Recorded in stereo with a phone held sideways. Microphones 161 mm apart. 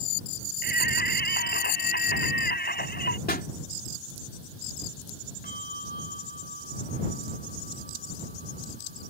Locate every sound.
0.6 s singing: 75° left (ahead or behind)
3.3 s a pop: 75° left (ahead or behind)
5.4 s a bell: 70° left (ahead or behind)